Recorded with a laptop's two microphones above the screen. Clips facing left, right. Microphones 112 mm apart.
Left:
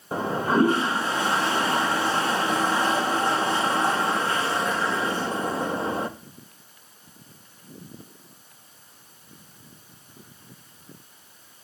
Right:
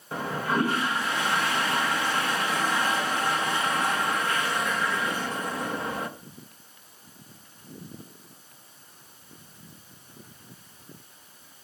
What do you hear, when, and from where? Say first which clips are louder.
0.1 s a toilet flushing: left 5 dB; 30° left (ahead or behind), 0.8 m